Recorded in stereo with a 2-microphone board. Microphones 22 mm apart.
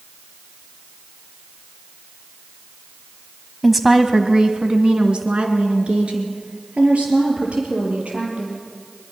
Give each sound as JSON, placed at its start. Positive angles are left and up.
{"t": 3.6, "sound": "a woman speaking", "side_deg": 0, "distance_m": 1.3}